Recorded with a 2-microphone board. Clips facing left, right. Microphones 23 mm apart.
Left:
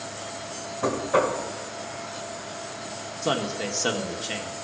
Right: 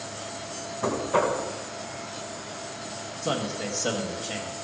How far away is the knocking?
About 1.8 m.